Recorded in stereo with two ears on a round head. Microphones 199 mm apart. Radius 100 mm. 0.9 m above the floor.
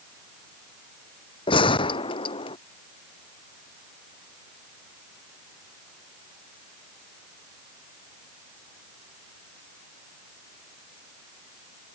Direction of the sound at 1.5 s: 25° left (ahead or behind).